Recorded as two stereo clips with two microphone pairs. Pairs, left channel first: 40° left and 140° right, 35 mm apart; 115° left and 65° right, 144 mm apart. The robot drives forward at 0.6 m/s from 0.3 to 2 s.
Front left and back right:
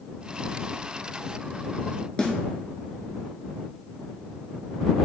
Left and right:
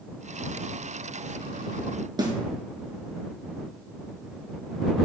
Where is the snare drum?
15° right, 1.1 m.